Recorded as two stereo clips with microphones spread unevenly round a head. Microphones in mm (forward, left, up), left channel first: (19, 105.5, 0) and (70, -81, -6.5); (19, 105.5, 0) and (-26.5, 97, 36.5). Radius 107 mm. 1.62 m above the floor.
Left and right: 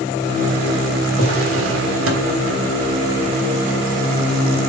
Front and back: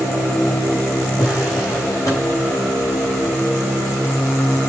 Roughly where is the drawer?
Right.